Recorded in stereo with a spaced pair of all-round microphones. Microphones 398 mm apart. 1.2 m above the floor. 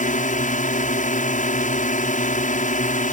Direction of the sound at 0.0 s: 20° left (ahead or behind).